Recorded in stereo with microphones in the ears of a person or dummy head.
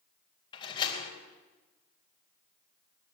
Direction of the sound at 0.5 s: 25° left (ahead or behind).